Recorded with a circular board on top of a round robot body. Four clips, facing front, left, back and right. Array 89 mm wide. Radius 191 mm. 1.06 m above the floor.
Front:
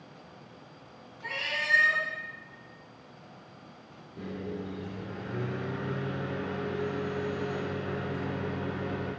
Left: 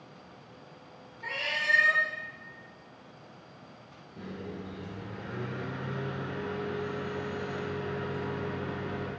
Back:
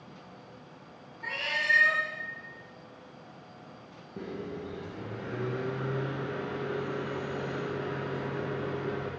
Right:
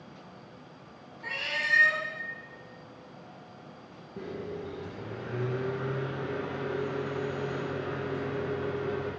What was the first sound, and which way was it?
A cat meowing, 130° left.